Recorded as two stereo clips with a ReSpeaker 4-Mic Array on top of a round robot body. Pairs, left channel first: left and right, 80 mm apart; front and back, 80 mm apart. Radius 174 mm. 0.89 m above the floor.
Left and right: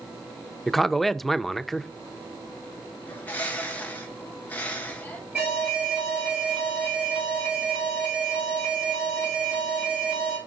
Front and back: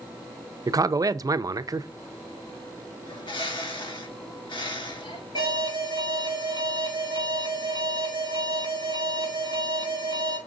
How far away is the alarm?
About 5 m.